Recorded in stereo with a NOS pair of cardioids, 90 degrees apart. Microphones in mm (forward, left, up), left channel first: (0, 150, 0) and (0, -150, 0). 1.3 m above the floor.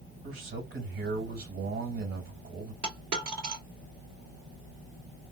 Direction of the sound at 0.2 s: 50° right.